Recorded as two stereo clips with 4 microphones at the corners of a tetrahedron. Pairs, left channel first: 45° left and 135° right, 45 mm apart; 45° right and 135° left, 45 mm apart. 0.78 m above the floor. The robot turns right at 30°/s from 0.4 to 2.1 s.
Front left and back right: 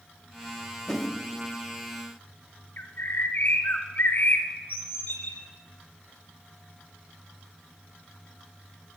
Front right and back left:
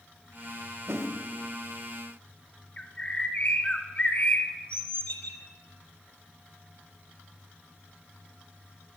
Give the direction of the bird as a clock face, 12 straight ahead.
12 o'clock.